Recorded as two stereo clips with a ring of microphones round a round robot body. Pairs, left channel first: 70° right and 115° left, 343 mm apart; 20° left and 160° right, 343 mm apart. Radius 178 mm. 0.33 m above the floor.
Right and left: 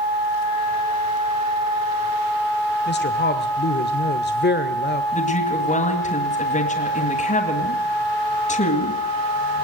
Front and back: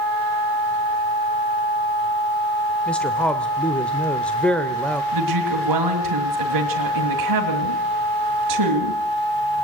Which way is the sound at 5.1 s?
135° right.